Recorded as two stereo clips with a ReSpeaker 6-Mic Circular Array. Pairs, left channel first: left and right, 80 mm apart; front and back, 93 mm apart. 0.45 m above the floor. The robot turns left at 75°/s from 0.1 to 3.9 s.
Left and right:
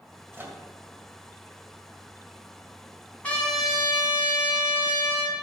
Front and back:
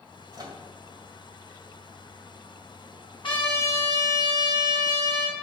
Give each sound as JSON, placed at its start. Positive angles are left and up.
{"t": 0.3, "sound": "a microwave", "azimuth_deg": -145, "distance_m": 2.0}
{"t": 3.2, "sound": "a trumpet", "azimuth_deg": 20, "distance_m": 4.5}